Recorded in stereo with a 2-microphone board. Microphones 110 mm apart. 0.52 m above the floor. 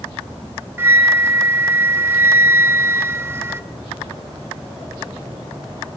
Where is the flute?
20° right (ahead or behind), 0.8 m.